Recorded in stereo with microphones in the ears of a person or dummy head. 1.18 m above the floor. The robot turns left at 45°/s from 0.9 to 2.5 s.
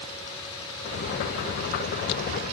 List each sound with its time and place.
Only background noise.